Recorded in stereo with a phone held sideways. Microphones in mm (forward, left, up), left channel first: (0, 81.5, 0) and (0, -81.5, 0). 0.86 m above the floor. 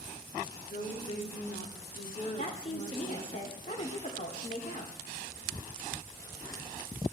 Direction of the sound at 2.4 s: 50° left (ahead or behind).